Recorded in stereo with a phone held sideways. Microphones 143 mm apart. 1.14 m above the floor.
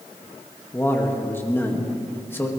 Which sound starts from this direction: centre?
A man speaking, at 0.7 s.